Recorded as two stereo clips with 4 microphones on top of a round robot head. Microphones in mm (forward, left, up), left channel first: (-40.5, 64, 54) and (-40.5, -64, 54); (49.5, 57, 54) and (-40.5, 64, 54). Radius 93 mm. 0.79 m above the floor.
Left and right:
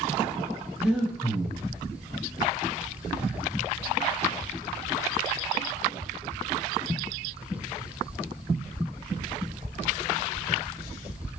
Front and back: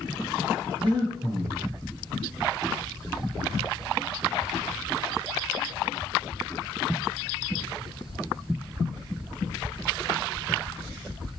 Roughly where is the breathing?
Behind.